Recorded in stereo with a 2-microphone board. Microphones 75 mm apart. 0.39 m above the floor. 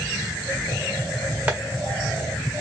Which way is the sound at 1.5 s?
20° right (ahead or behind).